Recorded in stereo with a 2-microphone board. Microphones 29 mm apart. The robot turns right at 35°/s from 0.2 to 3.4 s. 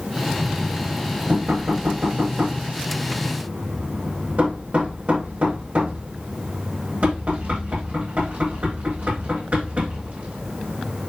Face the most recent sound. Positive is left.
turn(degrees=-50)  # may be behind; listen again after turning